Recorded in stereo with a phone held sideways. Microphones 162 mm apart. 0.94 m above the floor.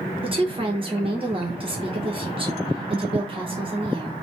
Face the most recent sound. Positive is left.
turn(degrees=-35)  # may be behind; listen again after turning